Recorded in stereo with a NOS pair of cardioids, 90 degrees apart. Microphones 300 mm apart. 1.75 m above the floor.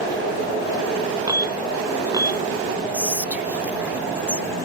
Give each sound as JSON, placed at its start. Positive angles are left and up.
{"t": 1.3, "sound": "an alarm", "azimuth_deg": -15}
{"t": 2.9, "sound": "whispering", "azimuth_deg": -5}